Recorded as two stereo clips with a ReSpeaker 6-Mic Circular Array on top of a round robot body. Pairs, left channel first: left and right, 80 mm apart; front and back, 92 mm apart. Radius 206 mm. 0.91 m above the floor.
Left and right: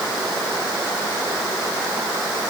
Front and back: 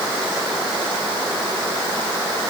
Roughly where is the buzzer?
I don't hear a buzzer.